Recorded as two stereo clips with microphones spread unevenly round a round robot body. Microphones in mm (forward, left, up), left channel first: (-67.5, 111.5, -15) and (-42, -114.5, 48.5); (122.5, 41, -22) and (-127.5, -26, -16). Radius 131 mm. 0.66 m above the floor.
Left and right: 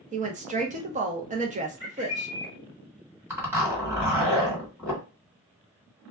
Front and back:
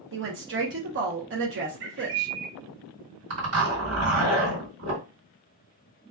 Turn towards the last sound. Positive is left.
turn(degrees=-175)